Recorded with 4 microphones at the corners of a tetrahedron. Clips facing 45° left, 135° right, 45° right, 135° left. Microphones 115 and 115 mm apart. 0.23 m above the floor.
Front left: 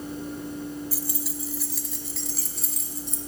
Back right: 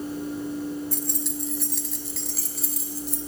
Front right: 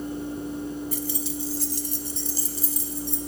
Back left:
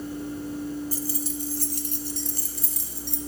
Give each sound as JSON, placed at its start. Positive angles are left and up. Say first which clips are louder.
{"t": 0.9, "sound": "keys jangling", "louder": "back right 3 dB, front right 1 dB", "azimuth_deg": 125, "distance_m": 0.8}